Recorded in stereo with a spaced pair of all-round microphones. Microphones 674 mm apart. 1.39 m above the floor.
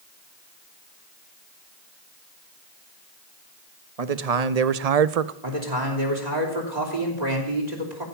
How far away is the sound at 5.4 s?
About 3.5 m.